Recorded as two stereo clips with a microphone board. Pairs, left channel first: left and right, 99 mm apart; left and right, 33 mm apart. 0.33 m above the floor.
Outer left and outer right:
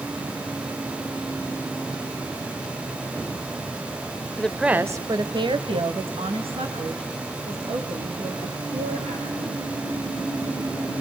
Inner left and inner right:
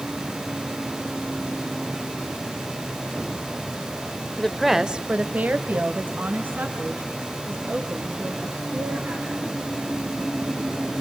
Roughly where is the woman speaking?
Centre.